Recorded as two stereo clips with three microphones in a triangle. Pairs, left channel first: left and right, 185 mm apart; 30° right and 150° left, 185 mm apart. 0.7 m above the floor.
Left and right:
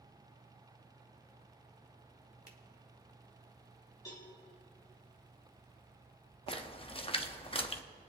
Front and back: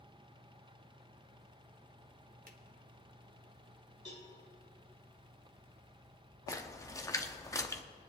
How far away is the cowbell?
About 4 m.